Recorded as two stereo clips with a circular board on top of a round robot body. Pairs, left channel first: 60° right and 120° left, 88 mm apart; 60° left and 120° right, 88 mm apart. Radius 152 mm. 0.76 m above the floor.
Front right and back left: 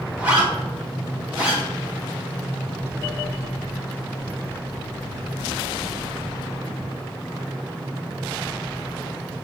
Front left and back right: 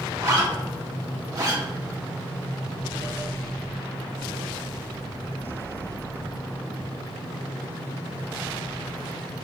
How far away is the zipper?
About 2 m.